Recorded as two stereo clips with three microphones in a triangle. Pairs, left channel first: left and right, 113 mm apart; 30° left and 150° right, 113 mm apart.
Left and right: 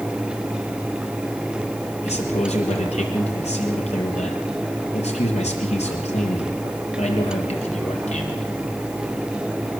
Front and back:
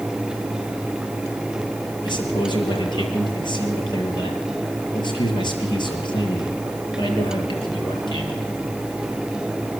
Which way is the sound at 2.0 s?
75° left.